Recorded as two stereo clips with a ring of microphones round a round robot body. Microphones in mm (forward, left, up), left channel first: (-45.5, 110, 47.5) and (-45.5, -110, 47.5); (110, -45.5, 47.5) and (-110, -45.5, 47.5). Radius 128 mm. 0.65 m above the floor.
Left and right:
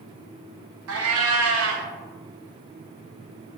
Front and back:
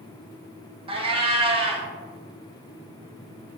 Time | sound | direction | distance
0.9 | a cat meowing | 110° right | 0.6 m